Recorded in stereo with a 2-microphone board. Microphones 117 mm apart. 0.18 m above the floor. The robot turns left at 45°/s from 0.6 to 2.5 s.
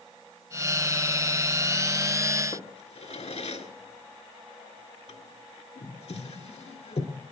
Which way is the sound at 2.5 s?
65° left (ahead or behind).